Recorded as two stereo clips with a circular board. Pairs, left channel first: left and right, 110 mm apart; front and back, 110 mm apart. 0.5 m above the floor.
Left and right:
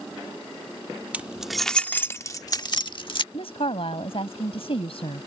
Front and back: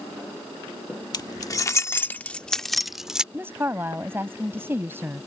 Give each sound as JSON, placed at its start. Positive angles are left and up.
{"t": 1.1, "sound": "keys jangling", "azimuth_deg": -20}
{"t": 3.3, "sound": "a woman speaking", "azimuth_deg": 110}